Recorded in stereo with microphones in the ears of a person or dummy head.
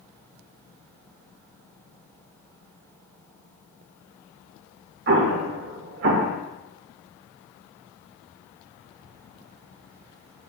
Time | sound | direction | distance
5.1 | an explosion | 50° right (ahead or behind) | 0.5 m